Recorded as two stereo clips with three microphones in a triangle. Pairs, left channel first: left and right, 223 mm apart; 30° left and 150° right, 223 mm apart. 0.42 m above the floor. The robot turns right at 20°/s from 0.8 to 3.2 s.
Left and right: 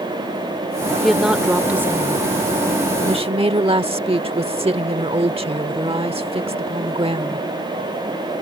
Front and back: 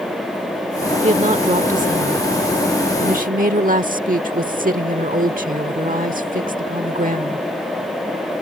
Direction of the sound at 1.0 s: Straight behind.